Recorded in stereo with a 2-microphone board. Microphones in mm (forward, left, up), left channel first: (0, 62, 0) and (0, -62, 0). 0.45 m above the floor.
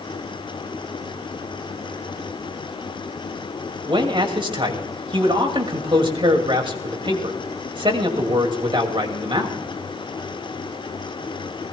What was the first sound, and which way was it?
A man speaking, 40° right (ahead or behind).